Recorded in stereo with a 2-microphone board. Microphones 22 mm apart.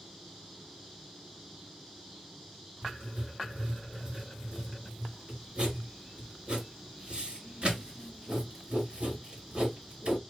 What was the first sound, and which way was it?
Writing, 50° right (ahead or behind).